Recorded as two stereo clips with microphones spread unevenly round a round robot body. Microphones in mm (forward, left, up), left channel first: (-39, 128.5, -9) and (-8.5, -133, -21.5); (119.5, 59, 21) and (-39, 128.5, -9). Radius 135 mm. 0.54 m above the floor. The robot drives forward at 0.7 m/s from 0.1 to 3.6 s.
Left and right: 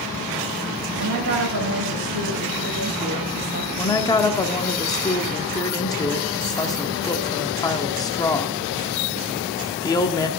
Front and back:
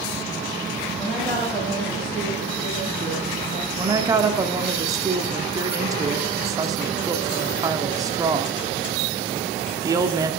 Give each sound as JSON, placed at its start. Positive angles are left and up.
{"t": 1.0, "sound": "a woman speaking", "azimuth_deg": -105, "distance_m": 2.5}
{"t": 3.8, "sound": "a woman speaking", "azimuth_deg": 165, "distance_m": 1.0}